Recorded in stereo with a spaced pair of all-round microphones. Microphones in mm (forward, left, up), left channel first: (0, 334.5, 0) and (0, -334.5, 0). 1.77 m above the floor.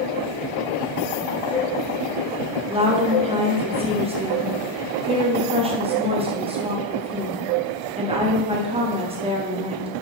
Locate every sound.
2.7 s a woman speaking: 10° right (ahead or behind), 0.7 m